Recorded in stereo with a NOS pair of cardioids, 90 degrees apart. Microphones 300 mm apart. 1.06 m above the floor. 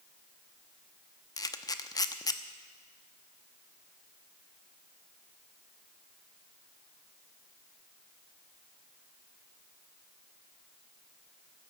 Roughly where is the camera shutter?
Ahead.